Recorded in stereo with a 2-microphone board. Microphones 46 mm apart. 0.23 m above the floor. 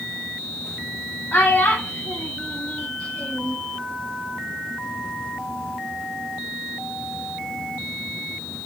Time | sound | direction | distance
1.3 | a child speaking | 35° left (ahead or behind) | 0.7 m